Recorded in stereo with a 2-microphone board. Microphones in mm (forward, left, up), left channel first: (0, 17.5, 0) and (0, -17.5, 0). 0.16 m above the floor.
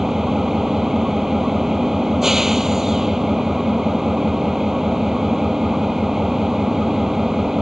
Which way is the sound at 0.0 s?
10° right (ahead or behind).